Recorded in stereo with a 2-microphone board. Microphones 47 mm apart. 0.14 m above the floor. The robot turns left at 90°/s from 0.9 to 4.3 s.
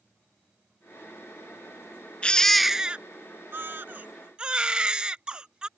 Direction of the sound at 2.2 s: 25° left (ahead or behind).